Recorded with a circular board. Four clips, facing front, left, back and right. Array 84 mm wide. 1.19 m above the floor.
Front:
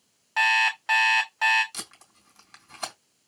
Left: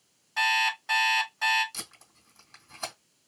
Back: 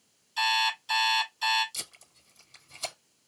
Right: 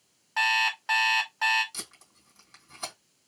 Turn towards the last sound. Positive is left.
turn(degrees=5)